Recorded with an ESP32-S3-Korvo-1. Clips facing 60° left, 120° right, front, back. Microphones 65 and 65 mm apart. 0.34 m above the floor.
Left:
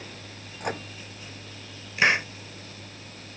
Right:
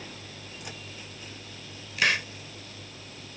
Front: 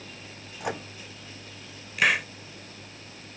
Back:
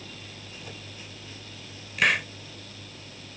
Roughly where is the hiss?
Left.